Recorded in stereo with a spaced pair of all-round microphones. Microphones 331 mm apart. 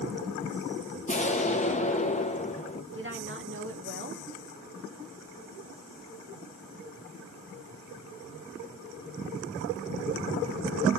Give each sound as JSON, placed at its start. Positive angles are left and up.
{"t": 1.1, "sound": "an explosion", "side_deg": 20, "distance_m": 0.7}
{"t": 2.9, "sound": "a woman speaking", "side_deg": -40, "distance_m": 1.5}